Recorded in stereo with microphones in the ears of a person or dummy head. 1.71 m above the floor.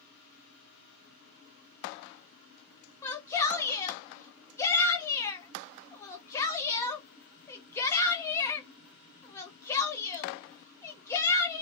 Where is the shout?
15° left (ahead or behind), 0.8 m.